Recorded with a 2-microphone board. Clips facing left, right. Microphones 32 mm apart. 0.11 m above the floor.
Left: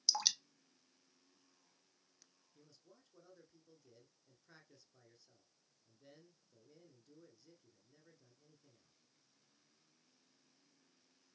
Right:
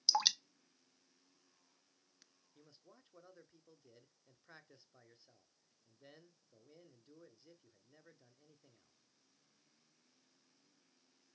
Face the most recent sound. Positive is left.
turn(degrees=-25)  # may be behind; listen again after turning